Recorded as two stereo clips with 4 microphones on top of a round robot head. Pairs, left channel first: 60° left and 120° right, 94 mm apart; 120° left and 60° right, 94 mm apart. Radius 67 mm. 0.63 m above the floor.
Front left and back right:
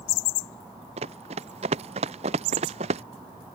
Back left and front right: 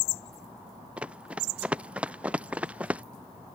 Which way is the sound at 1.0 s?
140° right.